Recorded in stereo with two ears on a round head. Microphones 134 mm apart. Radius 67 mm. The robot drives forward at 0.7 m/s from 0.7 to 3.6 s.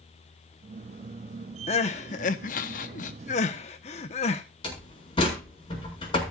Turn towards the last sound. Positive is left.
turn(degrees=35)  # may be behind; listen again after turning